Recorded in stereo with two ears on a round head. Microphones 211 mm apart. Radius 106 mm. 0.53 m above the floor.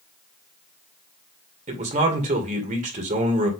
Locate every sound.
1.7 s a man speaking: 35° right (ahead or behind), 2 m